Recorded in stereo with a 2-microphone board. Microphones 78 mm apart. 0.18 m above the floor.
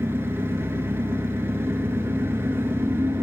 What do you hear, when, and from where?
0.0 s an engine running: 30° right (ahead or behind), 1.0 m